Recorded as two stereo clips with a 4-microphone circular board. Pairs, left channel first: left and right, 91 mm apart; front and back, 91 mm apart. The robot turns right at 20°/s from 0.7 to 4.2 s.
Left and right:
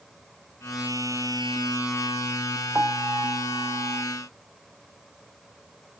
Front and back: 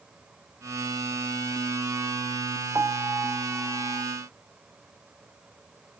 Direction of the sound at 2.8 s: 140° right.